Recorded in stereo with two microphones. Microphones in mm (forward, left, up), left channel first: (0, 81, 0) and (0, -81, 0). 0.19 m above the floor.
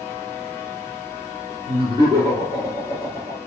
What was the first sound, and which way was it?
Laughter, 25° right (ahead or behind).